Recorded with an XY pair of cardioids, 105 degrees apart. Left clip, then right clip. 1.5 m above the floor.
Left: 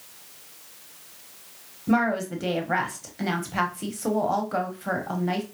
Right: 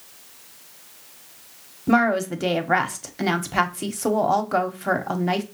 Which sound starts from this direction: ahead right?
A woman speaking, at 1.9 s.